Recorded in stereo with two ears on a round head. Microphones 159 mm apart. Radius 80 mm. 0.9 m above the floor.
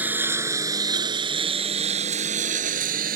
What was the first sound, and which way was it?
A lawn mower, 10° right (ahead or behind).